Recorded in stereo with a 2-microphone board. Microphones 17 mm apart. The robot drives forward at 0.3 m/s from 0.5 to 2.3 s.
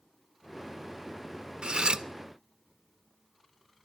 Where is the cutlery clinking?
70° right (ahead or behind), 0.6 m; by 2.0 s 65° right (ahead or behind), 0.6 m.